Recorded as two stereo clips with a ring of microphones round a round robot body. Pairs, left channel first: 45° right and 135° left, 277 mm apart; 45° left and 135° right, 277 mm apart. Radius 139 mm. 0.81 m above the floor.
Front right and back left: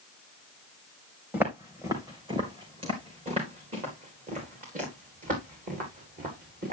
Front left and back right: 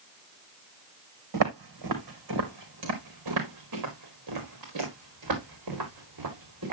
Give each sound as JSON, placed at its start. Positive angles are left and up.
{"t": 1.3, "sound": "footsteps", "azimuth_deg": -140, "distance_m": 2.5}